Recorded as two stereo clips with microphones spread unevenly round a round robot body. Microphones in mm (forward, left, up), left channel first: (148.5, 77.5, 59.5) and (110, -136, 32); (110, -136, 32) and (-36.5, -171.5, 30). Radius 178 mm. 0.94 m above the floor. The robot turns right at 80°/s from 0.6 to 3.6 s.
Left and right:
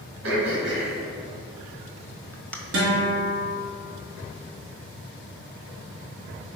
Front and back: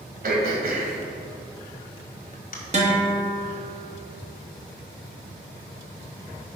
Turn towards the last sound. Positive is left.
turn(degrees=-55)